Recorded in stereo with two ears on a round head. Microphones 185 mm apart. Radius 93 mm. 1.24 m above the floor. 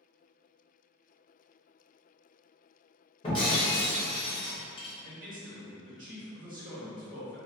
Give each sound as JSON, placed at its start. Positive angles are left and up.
{"t": 3.2, "sound": "breaking glass", "side_deg": 25, "distance_m": 0.9}
{"t": 5.0, "sound": "a man speaking", "side_deg": -40, "distance_m": 0.9}